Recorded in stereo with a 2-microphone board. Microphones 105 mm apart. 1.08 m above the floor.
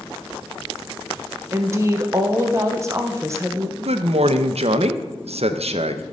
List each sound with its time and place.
1.5 s a woman speaking: 25° right (ahead or behind), 0.7 m
3.8 s a man speaking: 75° right (ahead or behind), 0.6 m